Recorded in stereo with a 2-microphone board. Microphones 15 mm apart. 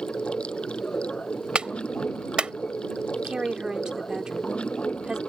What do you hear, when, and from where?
0.0 s running water: 85° left
1.6 s a clap: 80° right
3.2 s a woman speaking: 45° right (ahead or behind)